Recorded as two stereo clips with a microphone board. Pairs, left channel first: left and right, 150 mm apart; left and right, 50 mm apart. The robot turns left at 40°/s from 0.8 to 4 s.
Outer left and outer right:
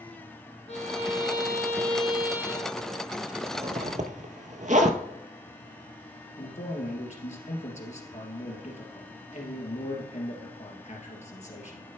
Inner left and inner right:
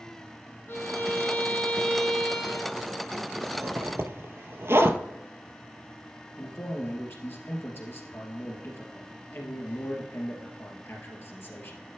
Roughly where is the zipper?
Right.